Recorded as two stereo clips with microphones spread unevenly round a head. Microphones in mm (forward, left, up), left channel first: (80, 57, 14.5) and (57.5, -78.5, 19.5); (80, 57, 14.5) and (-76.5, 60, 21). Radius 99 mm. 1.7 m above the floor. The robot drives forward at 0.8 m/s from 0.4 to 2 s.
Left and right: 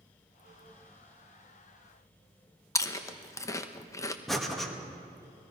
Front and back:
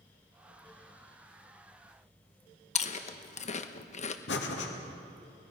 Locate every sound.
2.8 s chewing: 20° left, 1.0 m
4.3 s breathing: 10° right, 2.0 m